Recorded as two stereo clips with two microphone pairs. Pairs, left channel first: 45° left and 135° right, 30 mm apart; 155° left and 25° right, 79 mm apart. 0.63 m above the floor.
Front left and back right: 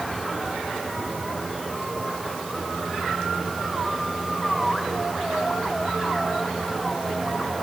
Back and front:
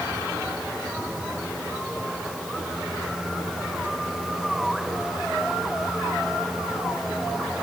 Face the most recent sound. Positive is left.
No sound to turn to.